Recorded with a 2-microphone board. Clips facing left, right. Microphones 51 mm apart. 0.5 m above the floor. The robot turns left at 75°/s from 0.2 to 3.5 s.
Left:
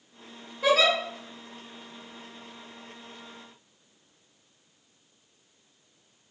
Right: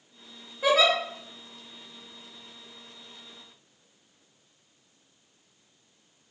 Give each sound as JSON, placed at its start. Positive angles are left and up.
{"t": 0.6, "sound": "a giggle", "side_deg": -10, "distance_m": 1.8}